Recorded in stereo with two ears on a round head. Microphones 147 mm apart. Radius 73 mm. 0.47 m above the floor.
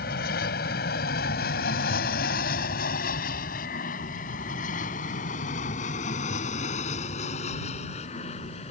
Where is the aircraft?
65° left (ahead or behind); by 8.7 s 40° left (ahead or behind).